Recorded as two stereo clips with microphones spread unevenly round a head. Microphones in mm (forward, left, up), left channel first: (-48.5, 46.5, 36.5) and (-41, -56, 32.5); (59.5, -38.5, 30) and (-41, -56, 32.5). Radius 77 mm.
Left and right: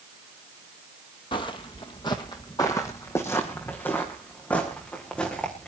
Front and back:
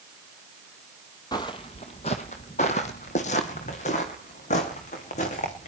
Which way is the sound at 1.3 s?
65° left.